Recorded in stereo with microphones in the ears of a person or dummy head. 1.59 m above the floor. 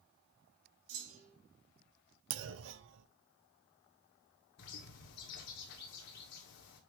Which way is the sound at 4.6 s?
60° left (ahead or behind).